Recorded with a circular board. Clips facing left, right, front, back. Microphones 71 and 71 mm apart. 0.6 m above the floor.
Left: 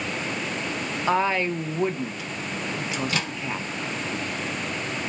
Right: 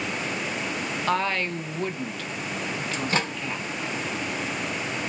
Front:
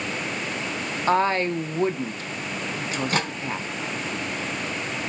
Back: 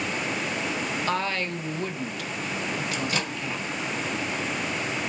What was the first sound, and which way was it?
A woman speaking, 20° left.